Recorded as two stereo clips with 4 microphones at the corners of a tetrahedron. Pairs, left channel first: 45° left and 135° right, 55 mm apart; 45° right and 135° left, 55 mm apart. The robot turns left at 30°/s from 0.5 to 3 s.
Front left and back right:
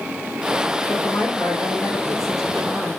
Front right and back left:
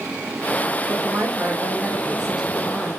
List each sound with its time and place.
0.9 s a woman speaking: 95° left, 3.5 m; by 2.9 s 35° left, 3.5 m